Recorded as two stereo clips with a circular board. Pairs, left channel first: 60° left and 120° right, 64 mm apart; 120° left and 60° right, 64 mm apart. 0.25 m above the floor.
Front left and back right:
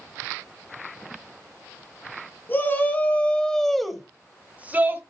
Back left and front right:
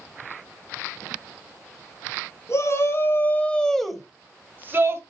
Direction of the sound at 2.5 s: 105° left.